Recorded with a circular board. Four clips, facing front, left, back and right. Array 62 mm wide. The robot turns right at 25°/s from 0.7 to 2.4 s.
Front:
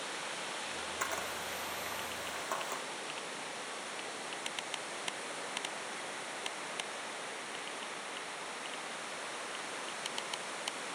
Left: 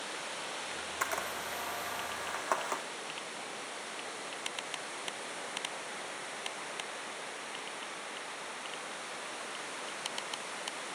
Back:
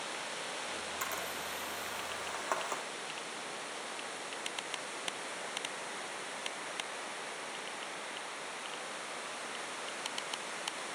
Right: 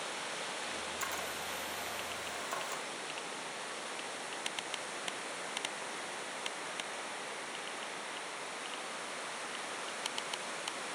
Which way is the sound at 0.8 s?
70° left.